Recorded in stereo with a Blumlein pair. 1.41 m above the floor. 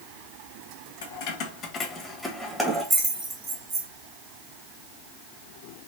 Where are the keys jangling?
55° left, 1.1 m; by 3.9 s 30° right, 1.8 m.